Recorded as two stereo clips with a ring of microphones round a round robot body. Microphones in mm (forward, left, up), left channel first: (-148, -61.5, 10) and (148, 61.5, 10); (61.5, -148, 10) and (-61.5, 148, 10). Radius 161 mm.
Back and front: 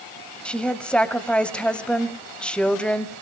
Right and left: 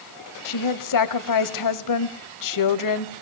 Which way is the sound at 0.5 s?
70° right.